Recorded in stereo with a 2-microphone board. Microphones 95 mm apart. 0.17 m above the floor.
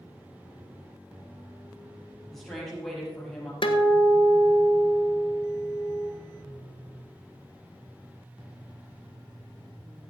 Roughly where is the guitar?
Left.